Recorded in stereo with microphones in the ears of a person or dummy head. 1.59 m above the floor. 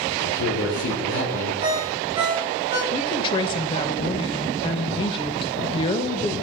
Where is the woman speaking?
30° left (ahead or behind), 1.6 m.